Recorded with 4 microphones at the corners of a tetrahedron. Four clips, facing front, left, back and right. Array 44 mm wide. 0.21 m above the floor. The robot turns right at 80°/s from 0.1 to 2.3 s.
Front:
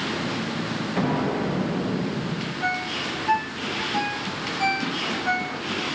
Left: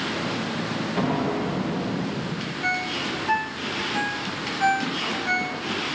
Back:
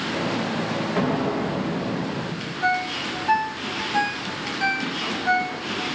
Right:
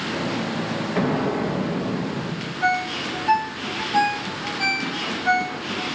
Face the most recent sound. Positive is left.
turn(degrees=-80)